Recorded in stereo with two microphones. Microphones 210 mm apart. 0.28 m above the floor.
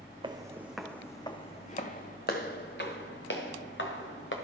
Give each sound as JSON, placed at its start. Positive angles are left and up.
{"t": 0.2, "sound": "footsteps", "side_deg": -25, "distance_m": 0.7}